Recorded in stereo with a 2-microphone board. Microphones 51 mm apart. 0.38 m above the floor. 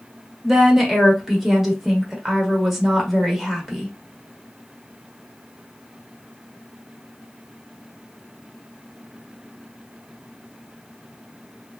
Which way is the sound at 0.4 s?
5° right (ahead or behind).